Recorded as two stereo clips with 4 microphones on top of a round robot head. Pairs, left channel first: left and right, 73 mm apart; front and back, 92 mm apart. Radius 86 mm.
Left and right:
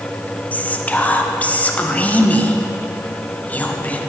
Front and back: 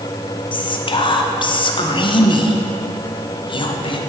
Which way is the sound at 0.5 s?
20° left.